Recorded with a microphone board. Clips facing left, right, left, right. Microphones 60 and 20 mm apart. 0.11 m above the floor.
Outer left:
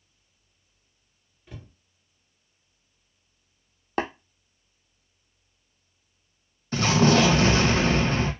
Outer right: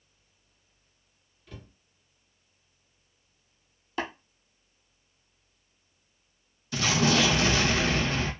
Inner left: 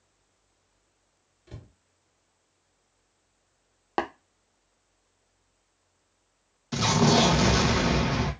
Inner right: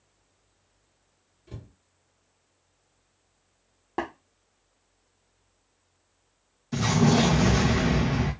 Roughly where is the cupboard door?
Centre.